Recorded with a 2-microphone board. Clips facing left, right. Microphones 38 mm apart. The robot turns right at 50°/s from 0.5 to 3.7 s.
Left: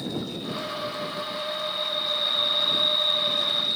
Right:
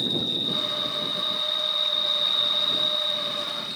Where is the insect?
100° right; by 3.8 s 60° left.